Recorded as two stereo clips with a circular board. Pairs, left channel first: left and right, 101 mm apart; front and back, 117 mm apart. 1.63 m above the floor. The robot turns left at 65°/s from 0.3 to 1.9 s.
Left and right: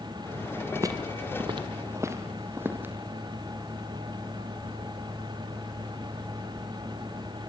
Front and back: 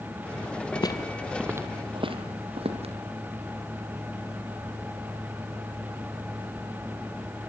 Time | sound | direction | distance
0.8 | footsteps | 35° right | 2.5 m